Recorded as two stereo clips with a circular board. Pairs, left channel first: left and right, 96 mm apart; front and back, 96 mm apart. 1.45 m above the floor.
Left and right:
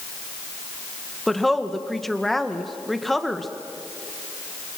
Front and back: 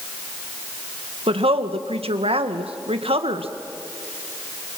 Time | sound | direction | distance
1.3 | a woman speaking | straight behind | 1.8 m